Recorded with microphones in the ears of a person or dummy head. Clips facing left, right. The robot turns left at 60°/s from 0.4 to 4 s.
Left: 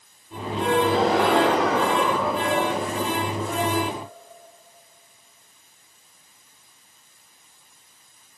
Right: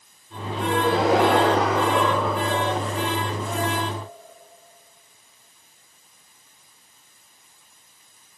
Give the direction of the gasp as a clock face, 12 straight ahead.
11 o'clock.